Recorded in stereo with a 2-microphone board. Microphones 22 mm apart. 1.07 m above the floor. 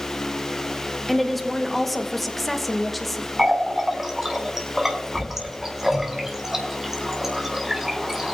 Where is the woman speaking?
Centre (ahead or behind), 1.2 m.